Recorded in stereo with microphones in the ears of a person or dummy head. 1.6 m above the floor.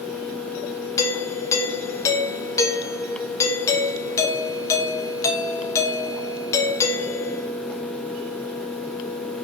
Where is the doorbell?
10° left (ahead or behind), 0.9 m.